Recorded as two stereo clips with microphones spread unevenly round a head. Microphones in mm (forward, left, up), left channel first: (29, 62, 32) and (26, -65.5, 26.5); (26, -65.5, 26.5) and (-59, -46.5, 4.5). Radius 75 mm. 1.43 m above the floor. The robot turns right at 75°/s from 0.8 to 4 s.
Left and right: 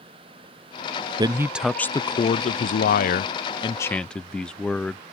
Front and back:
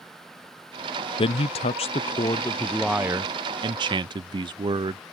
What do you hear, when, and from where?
1.2 s a man speaking: 40° right; by 5.0 s 175° left